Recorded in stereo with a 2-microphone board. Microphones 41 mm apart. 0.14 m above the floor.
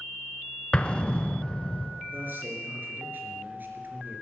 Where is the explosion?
30° left (ahead or behind), 0.6 m.